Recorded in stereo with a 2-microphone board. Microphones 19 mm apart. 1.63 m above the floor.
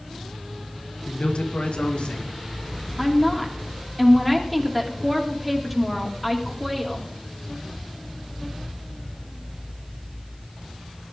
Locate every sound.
1.1 s a man speaking: 70° left (ahead or behind), 1.9 m; by 2.3 s 85° left, 2.5 m
3.0 s a woman speaking: 5° right (ahead or behind), 2.5 m